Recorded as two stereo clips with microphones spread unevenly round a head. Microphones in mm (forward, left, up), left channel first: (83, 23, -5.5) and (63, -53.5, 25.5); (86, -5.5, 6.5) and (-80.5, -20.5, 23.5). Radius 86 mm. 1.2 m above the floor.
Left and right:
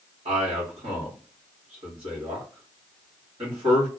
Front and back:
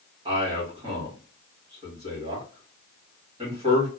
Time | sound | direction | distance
0.2 | a man speaking | 120° right | 2.5 m